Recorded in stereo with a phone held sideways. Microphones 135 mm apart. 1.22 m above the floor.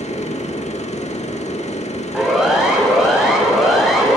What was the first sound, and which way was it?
A machine running, 55° left (ahead or behind).